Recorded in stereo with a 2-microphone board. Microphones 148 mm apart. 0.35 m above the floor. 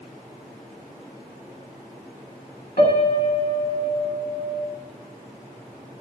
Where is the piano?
65° left (ahead or behind), 1.2 m.